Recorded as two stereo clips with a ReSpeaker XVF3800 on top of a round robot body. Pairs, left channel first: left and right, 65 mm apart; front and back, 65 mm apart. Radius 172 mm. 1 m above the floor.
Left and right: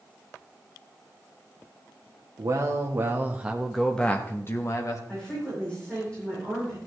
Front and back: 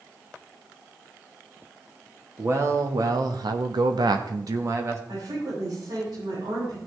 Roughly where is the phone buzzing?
No phone buzzing in this recording.